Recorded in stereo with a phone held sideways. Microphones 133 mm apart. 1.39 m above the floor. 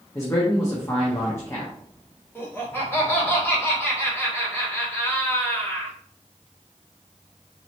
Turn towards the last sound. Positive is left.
turn(degrees=15)  # may be behind; listen again after turning